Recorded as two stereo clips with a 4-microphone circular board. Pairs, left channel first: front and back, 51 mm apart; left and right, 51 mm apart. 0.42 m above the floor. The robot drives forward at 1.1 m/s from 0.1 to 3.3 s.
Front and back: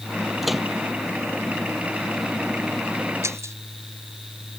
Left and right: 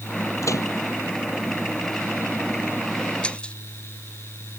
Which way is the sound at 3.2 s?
160° left.